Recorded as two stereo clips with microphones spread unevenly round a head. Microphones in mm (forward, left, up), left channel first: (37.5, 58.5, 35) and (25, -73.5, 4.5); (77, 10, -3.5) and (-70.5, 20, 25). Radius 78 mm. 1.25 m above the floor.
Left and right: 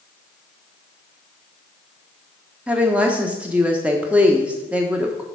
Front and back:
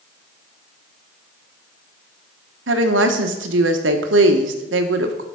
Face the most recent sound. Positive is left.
turn(degrees=-175)